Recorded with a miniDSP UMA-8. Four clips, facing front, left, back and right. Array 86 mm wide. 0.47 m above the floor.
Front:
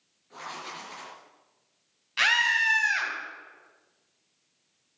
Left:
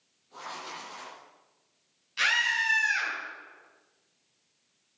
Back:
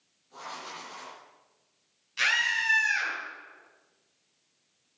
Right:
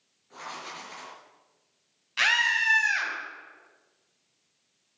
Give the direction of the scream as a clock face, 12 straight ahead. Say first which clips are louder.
Right 2 dB, front 4 dB; 1 o'clock.